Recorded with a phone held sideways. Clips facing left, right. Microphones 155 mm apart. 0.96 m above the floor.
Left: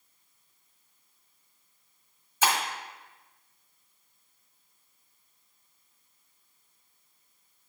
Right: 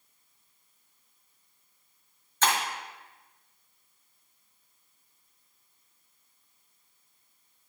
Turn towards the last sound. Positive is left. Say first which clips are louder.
# even
turn(degrees=10)  # may be behind; listen again after turning